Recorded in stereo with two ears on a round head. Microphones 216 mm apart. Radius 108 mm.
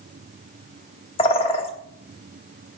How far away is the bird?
About 1.2 m.